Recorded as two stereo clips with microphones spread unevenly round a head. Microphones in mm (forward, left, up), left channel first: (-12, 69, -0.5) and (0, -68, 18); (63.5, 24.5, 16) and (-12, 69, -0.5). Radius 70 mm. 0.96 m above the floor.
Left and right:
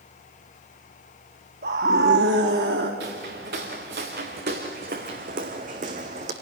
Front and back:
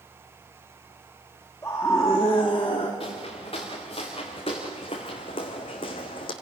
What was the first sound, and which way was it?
A scream, 105° right.